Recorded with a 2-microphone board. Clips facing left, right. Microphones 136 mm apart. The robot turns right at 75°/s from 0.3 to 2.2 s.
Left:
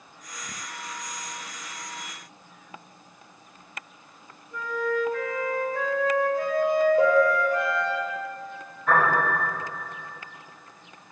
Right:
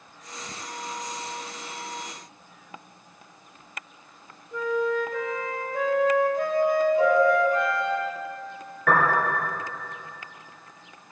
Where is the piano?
80° right, 2.5 m.